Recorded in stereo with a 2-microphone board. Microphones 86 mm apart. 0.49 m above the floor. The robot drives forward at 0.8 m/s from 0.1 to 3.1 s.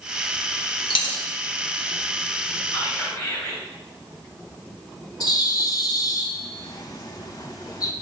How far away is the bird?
About 0.7 m.